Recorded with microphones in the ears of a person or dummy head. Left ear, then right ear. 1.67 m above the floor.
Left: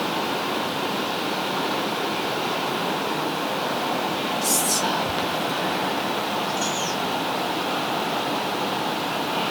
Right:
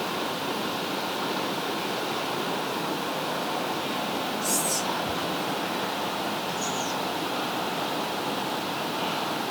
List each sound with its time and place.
4.4 s whispering: 25° left (ahead or behind), 0.7 m